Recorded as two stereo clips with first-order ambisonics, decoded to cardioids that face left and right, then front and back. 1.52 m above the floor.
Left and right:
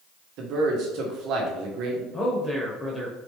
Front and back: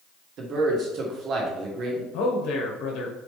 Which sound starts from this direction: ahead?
A man speaking, at 2.1 s.